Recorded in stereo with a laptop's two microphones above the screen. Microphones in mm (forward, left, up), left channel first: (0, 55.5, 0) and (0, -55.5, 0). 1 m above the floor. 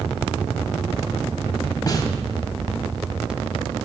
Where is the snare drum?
35° left (ahead or behind), 1.7 m.